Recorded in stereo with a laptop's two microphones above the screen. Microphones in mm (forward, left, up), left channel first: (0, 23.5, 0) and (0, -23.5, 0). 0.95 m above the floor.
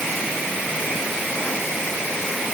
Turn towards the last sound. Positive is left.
No sound to turn to.